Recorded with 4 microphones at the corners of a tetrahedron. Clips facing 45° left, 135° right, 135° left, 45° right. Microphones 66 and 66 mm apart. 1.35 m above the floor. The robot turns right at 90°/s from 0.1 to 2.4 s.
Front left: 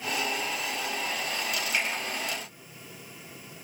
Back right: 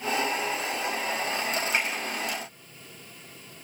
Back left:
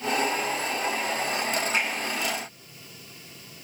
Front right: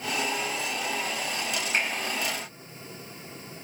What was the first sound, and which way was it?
A finger snap, 80° right.